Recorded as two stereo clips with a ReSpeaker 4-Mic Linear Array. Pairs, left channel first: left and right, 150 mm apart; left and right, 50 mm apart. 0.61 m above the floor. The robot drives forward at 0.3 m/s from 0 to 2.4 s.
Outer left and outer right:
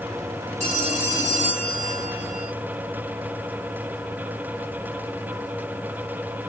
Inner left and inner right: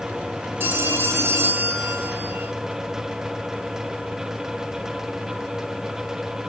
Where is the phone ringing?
55° right (ahead or behind), 2.5 m; by 2.5 s 65° right (ahead or behind), 2.5 m.